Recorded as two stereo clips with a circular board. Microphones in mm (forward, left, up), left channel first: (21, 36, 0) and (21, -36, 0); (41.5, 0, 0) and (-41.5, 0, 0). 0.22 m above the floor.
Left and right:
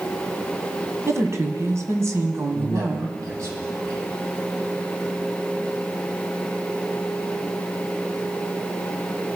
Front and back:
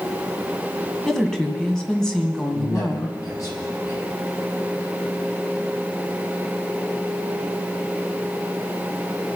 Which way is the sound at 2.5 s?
50° right.